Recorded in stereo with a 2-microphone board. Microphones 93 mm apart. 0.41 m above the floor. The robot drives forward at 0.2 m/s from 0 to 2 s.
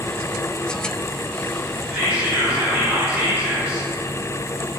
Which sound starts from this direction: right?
Whispering, at 1.9 s.